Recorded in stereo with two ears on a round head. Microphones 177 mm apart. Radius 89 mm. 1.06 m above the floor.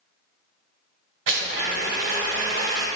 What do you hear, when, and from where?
1.3 s a blender: 70° right (ahead or behind), 2 m